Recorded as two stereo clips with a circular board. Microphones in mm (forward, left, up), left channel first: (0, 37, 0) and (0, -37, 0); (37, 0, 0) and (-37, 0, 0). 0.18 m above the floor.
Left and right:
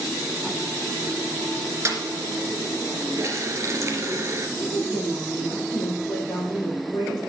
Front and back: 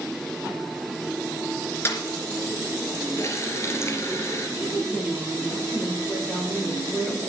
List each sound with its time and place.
1.9 s a snare drum: 50° right, 2.5 m
3.2 s a running tap: 50° right, 2 m
4.6 s a woman speaking: 55° left, 5 m